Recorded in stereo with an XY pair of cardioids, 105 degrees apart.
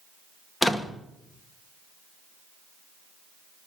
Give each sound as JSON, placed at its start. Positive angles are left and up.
{"t": 0.6, "sound": "a door slam", "azimuth_deg": 15, "distance_m": 1.8}